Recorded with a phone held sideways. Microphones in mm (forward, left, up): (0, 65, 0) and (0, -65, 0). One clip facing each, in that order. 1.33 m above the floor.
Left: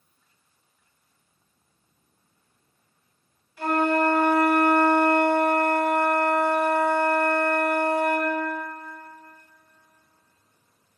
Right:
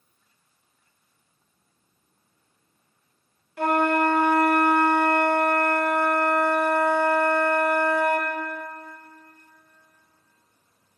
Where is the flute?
60° right (ahead or behind), 0.9 m.